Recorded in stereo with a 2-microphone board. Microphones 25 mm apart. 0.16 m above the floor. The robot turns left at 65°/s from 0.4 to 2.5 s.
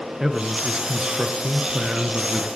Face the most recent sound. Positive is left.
turn(degrees=-165)